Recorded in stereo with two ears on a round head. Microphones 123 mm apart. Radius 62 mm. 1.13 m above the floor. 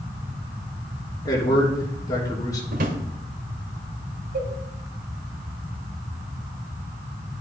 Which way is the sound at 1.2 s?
25° left (ahead or behind).